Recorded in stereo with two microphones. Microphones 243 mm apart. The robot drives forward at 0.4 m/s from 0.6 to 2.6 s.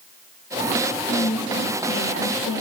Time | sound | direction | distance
1.1 | a woman speaking | 65° left (ahead or behind) | 2.5 m